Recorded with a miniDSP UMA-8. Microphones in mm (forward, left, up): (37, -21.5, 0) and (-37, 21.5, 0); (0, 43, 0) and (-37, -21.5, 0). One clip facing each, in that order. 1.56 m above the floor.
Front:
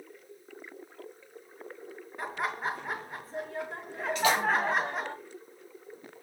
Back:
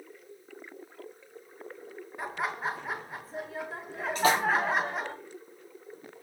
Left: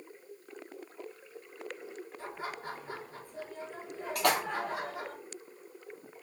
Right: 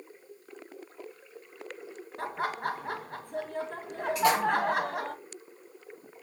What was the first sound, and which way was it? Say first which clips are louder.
Laughter: even, right 10 dB; 120° right.